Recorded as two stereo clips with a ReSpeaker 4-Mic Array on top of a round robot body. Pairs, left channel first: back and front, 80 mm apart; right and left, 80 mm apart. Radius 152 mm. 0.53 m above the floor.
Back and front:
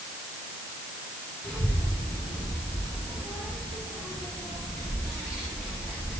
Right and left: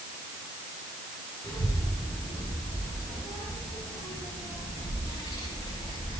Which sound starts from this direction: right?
A child speaking, at 1.4 s.